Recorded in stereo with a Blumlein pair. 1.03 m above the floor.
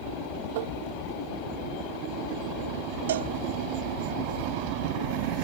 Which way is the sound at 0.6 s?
55° right.